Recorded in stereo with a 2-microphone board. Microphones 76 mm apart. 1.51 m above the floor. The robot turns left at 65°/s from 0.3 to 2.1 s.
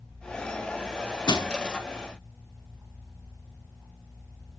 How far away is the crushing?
About 1.0 m.